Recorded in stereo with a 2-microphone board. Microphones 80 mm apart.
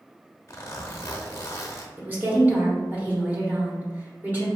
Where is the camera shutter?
No camera shutter in this recording.